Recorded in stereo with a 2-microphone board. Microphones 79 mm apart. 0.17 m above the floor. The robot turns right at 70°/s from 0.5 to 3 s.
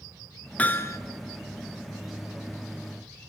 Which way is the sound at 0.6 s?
20° left (ahead or behind).